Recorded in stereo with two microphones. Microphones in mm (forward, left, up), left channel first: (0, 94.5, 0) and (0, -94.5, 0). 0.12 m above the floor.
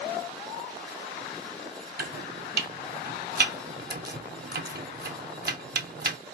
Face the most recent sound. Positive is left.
turn(degrees=-55)  # may be behind; listen again after turning